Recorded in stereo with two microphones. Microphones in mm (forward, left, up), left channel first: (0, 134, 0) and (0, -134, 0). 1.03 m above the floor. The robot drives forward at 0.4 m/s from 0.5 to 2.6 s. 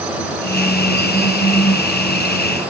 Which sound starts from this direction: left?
A phone buzzing, at 1.1 s.